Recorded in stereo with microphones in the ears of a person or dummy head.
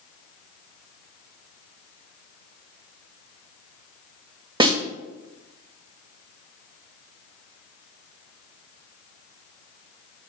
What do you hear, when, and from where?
4.6 s a snare drum: 30° right (ahead or behind), 1.0 m